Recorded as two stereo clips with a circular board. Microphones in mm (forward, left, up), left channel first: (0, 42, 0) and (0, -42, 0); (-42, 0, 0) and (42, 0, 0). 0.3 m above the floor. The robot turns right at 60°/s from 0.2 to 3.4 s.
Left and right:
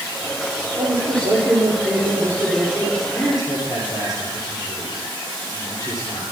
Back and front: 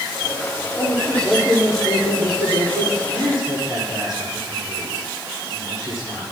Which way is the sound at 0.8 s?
120° right.